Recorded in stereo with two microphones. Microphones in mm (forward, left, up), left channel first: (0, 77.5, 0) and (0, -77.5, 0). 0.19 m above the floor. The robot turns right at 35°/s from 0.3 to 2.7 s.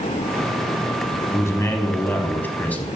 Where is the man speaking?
20° left (ahead or behind), 1.0 m; by 2.9 s 10° left (ahead or behind), 1.0 m.